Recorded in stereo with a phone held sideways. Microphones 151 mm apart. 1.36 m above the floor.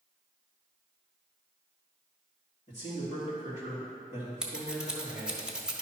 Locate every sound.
2.7 s a man speaking: 50° left (ahead or behind), 2.5 m
4.4 s scissors: 5° right (ahead or behind), 1.2 m